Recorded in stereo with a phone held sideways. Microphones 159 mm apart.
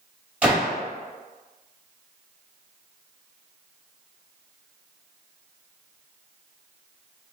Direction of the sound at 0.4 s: 10° right (ahead or behind).